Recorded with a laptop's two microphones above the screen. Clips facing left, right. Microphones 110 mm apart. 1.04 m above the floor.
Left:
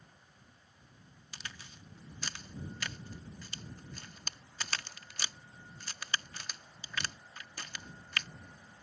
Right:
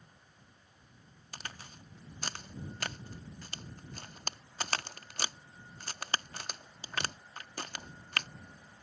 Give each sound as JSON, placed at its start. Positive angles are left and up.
{"t": 1.3, "sound": "a crack", "side_deg": -45}